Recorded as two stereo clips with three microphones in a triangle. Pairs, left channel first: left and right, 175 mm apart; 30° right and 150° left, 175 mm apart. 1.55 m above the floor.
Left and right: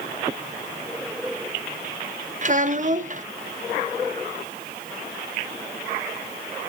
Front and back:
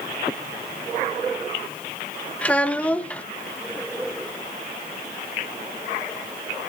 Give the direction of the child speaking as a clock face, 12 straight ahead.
4 o'clock.